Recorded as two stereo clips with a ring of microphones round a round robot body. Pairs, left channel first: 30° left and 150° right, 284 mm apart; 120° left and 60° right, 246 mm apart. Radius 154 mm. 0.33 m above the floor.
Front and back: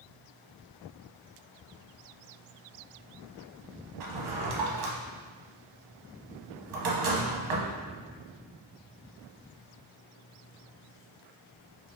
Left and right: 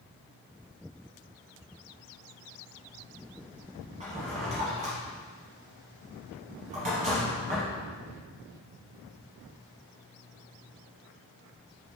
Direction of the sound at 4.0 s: 130° right.